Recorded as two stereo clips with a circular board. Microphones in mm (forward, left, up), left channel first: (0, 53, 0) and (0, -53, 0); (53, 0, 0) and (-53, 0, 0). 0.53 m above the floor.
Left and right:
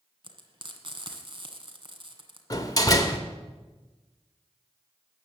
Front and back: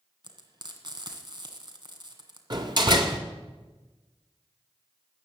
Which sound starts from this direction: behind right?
Frying, at 0.2 s.